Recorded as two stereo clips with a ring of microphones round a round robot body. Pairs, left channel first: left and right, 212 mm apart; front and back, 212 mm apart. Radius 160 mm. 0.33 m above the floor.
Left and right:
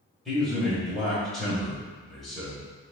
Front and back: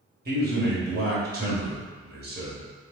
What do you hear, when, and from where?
0.2 s a man speaking: straight behind, 1.5 m